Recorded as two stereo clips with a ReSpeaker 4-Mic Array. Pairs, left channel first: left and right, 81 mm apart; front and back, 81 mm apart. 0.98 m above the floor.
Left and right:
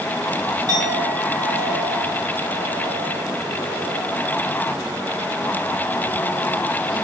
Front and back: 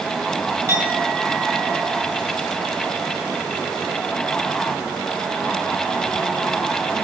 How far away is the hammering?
No hammering in this recording.